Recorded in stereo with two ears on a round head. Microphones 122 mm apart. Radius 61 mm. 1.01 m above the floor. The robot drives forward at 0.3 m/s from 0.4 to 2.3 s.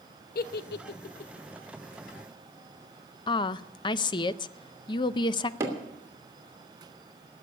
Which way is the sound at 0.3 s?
70° left (ahead or behind).